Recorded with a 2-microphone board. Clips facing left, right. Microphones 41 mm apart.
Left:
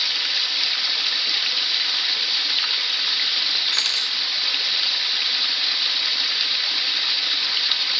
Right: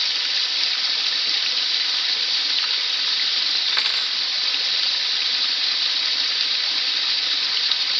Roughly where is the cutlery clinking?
Centre.